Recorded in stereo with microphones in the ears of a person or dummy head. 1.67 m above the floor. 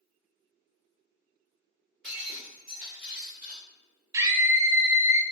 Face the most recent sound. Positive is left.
turn(degrees=-15)  # may be behind; listen again after turning